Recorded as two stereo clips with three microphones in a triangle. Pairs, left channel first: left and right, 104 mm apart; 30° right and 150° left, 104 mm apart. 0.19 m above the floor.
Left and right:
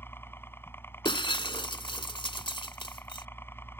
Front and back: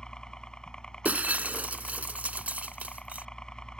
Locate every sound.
0.0 s a helicopter: 45° left
1.1 s breaking glass: 80° left